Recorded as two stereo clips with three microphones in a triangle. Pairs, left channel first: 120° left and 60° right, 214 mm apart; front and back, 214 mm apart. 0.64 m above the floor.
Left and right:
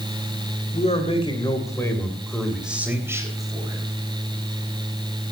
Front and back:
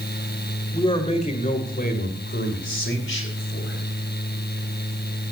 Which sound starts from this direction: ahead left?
A man speaking, at 0.7 s.